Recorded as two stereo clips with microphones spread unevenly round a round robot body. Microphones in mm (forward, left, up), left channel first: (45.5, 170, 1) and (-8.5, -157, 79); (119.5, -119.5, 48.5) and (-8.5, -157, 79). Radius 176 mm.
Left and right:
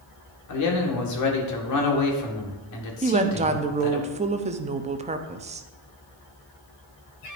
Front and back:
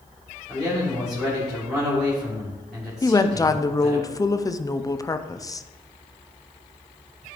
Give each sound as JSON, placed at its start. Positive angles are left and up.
{"t": 0.5, "sound": "a man speaking", "azimuth_deg": 100, "distance_m": 1.8}
{"t": 3.0, "sound": "a woman speaking", "azimuth_deg": -20, "distance_m": 0.7}